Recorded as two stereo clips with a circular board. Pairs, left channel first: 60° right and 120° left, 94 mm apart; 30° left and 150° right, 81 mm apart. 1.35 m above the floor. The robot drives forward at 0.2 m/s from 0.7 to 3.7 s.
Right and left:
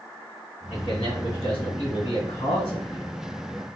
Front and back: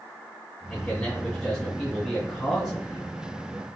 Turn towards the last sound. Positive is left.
turn(degrees=-70)